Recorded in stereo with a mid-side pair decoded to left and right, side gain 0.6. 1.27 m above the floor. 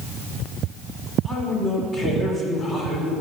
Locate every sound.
1.2 s a man speaking: 30° left, 3.5 m